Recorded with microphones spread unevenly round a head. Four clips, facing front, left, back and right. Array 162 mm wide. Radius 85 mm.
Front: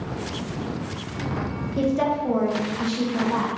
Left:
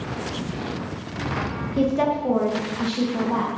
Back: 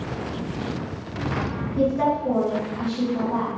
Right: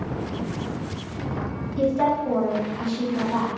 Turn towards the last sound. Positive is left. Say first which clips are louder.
# even, back 1 dB
turn(degrees=55)